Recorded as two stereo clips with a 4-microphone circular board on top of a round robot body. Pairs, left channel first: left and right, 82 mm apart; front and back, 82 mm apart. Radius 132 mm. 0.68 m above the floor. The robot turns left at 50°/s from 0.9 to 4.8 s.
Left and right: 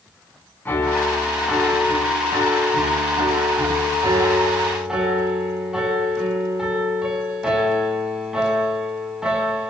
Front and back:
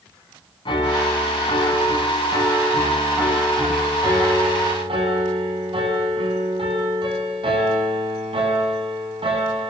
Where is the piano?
20° left, 6 m; by 9.7 s 175° right, 6 m.